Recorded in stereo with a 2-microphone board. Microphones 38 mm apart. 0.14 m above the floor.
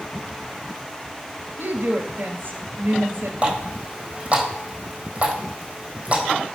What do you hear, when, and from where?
1.6 s a woman speaking: 60° right (ahead or behind), 2 m
3.4 s a running tap: 30° right (ahead or behind), 3.5 m